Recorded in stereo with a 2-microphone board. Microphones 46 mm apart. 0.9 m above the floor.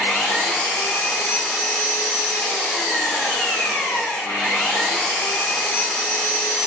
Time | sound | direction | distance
0.0 | an engine running | 60° left (ahead or behind) | 5 m